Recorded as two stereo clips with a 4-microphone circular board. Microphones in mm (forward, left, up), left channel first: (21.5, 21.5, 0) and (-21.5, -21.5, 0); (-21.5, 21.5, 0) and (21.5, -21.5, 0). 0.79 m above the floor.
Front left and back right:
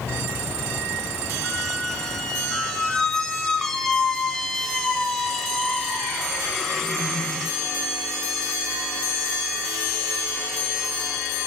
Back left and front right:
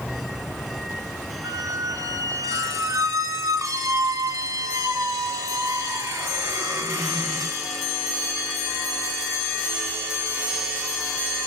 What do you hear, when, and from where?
1.4 s a squeak: 35° right, 1.9 m